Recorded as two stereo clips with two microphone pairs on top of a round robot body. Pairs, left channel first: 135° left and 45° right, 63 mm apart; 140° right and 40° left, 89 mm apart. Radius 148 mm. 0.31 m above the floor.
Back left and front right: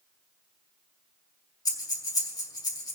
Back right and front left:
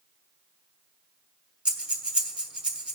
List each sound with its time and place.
1.6 s breathing: 120° left, 2.5 m